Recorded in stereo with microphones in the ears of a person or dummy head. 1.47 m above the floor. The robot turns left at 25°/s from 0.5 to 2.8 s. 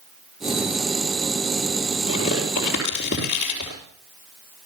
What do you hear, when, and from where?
2.1 s tearing paper: 30° left (ahead or behind), 5.5 m; by 3.8 s 50° left (ahead or behind), 5.5 m